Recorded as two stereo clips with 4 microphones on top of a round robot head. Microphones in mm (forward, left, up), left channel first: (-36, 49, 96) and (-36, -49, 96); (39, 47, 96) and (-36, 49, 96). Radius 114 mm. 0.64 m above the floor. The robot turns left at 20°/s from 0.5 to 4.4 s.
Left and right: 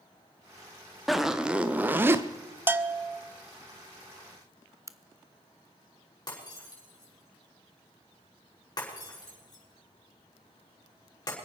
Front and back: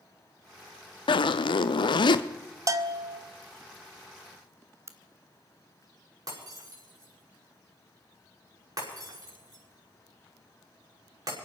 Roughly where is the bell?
Behind right.